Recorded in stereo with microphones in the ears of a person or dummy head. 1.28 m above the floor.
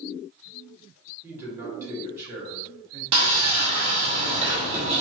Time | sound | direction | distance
1.2 | a man speaking | 20° right (ahead or behind) | 1.4 m
3.1 | sawing | 35° right (ahead or behind) | 0.9 m